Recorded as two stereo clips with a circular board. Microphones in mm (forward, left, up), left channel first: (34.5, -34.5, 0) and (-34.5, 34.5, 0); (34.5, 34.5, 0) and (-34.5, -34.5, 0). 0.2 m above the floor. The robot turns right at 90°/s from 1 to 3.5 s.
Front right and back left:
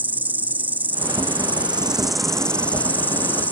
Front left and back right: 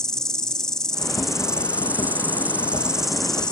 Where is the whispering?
No whispering in this recording.